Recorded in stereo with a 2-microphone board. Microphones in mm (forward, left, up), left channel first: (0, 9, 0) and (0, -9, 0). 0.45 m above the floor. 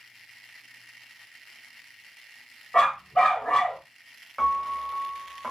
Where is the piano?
10° right (ahead or behind), 0.6 m.